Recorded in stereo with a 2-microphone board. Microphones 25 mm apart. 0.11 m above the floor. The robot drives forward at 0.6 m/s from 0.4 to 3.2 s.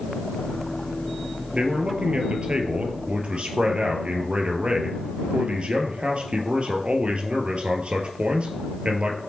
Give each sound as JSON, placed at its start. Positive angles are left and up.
{"t": 1.5, "sound": "a man speaking", "side_deg": -55, "distance_m": 2.0}